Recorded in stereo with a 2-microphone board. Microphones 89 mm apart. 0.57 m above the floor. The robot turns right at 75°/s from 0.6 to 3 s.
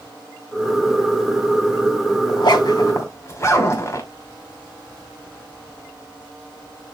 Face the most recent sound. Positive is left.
turn(degrees=35)  # may be behind; listen again after turning